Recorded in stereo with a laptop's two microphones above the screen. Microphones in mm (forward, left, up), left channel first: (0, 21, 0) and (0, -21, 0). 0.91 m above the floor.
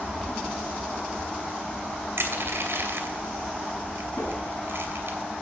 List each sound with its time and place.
0.0 s a fan: 15° left (ahead or behind), 2.0 m
2.2 s crushing: 60° right (ahead or behind), 2.5 m
4.2 s a whoosh: 85° left, 6 m